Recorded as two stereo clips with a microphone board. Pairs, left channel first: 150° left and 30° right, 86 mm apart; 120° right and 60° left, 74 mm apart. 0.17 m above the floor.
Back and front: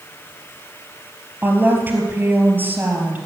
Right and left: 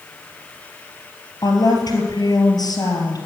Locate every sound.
1.4 s a woman speaking: 95° right, 3.5 m